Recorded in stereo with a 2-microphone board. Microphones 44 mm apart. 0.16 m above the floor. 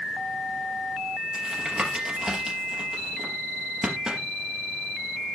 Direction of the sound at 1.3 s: 15° right (ahead or behind).